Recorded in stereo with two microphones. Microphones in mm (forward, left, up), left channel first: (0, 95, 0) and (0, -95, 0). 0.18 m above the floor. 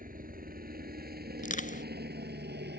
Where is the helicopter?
45° right (ahead or behind); by 2.8 s 60° right (ahead or behind).